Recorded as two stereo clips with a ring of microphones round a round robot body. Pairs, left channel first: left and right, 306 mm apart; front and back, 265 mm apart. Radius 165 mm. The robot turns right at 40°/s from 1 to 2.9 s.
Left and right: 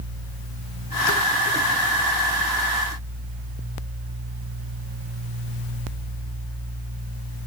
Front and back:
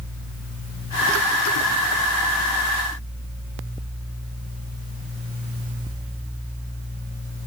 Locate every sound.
Only background noise.